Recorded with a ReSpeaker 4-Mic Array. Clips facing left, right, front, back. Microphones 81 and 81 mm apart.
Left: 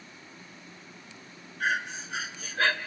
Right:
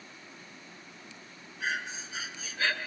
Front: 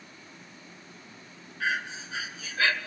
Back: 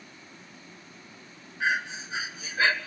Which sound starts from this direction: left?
Breathing, at 1.6 s.